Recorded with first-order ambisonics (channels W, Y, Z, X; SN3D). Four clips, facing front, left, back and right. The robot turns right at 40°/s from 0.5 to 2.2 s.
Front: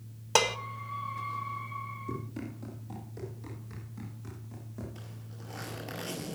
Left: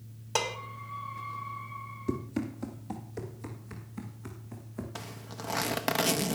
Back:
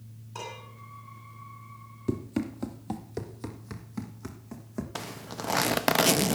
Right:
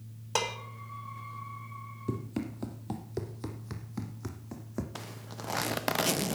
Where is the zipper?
Straight behind, 0.6 m.